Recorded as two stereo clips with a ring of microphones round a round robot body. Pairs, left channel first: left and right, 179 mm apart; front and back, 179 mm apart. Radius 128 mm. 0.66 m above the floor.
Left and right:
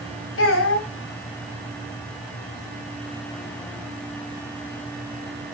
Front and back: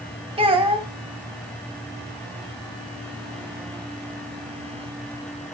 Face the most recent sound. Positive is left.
turn(degrees=120)